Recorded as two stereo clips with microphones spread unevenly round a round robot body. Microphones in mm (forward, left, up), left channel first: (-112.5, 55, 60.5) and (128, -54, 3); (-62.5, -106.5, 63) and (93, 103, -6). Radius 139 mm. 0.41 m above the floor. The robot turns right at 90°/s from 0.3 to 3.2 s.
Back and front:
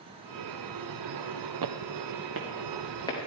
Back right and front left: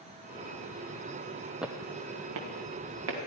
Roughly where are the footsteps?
Ahead right.